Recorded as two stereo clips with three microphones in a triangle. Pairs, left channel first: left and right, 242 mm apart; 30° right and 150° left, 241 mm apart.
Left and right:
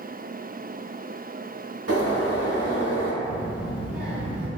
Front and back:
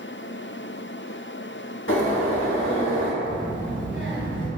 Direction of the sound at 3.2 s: 175° right.